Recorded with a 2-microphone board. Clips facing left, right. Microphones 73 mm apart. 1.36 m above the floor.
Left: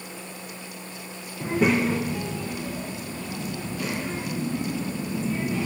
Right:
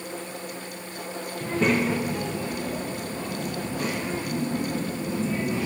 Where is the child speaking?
20° left (ahead or behind), 0.6 m; by 5.7 s 40° right (ahead or behind), 2.5 m.